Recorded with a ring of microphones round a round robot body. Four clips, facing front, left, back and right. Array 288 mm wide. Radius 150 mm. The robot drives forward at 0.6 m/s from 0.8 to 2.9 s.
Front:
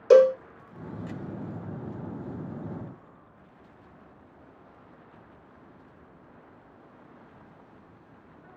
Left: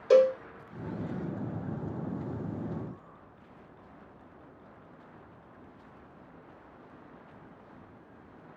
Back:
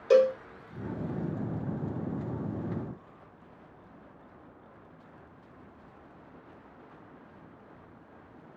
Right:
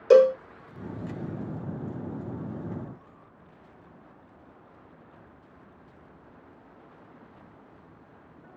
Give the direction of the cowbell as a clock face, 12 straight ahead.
1 o'clock.